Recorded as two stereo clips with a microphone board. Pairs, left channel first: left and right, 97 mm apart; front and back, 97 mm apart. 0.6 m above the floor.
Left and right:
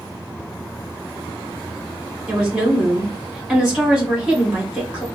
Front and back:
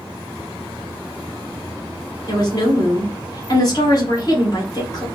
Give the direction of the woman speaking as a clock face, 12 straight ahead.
12 o'clock.